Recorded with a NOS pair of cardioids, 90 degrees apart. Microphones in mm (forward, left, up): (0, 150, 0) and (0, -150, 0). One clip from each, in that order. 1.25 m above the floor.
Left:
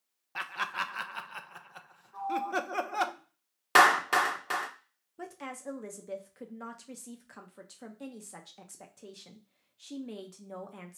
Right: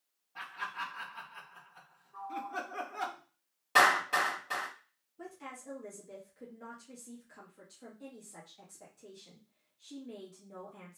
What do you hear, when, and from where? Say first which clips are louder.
0.3 s laughter: left 6 dB; 70° left, 0.7 m
2.1 s a sliding door: left 7 dB; 35° left, 1.1 m
3.8 s a clap: left 3 dB; 65° left, 1.2 m
5.2 s a woman speaking: left 5 dB; 60° left, 0.9 m